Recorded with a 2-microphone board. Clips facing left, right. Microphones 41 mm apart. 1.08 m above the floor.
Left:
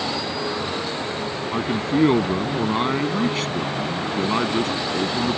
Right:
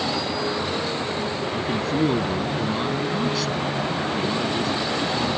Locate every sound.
1.5 s a man speaking: 30° left (ahead or behind); by 5.4 s 50° left (ahead or behind)